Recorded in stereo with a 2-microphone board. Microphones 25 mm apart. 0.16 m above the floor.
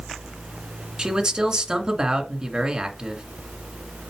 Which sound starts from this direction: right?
A man speaking, at 1.0 s.